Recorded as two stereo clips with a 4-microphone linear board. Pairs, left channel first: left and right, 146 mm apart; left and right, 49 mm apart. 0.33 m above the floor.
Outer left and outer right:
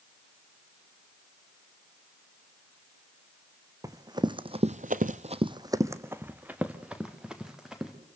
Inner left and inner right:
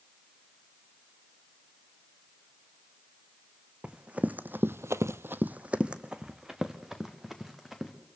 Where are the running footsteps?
25° right (ahead or behind), 1.7 m; by 7.9 s 5° right (ahead or behind), 4 m.